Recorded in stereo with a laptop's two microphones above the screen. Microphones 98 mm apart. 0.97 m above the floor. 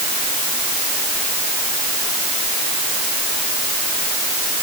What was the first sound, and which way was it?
Only background noise.